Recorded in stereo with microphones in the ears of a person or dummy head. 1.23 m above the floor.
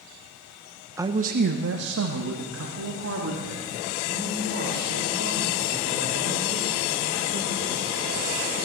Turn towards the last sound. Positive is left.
turn(degrees=-75)  # may be behind; listen again after turning